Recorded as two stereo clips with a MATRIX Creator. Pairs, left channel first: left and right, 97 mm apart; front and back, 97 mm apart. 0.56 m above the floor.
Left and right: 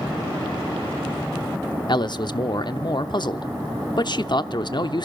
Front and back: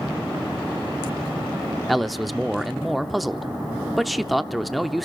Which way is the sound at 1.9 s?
90° left.